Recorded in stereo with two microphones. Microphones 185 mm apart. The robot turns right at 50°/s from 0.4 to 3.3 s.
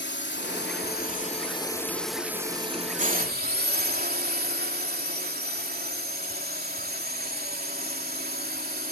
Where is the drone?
95° left; by 8.9 s 120° right.